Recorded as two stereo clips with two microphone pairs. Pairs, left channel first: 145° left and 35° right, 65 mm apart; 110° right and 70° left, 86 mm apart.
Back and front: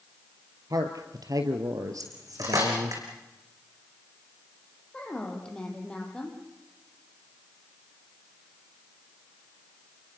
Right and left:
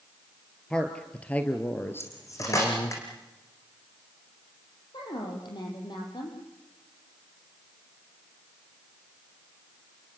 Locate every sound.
0.7 s a man speaking: 30° right, 2.5 m; by 3.0 s 70° right, 2 m
2.0 s cutlery clinking: 60° right, 6 m
4.9 s a woman speaking: 135° right, 5.5 m